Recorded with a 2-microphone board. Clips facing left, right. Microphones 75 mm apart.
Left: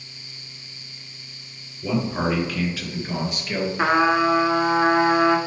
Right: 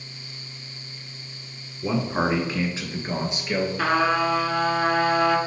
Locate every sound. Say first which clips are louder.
1.8 s a man speaking: even; 30° right (ahead or behind), 1.4 m; by 3.7 s 25° right (ahead or behind), 2 m
3.8 s a trumpet: left 4 dB; 25° left (ahead or behind), 0.9 m